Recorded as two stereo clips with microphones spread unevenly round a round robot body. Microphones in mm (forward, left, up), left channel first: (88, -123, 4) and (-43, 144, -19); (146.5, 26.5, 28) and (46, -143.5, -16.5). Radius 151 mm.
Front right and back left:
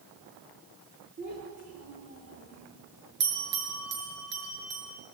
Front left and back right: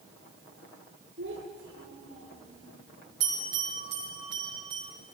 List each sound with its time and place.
1.2 s a child speaking: straight behind, 9.5 m
3.2 s a bell: 175° left, 6.5 m